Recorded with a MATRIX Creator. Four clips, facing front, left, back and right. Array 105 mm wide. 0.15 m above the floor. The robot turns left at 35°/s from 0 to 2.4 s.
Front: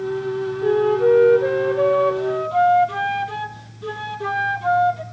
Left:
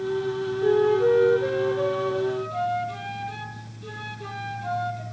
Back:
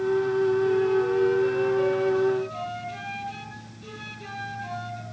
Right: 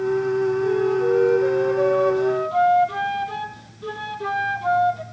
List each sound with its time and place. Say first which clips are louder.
0.6 s a flute: even, front 6 dB; 30° left, 1.0 m; by 5.0 s 35° right, 1.0 m